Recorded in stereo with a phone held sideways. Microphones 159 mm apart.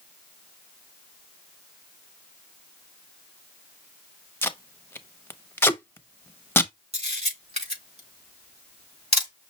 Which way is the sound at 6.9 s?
45° right (ahead or behind).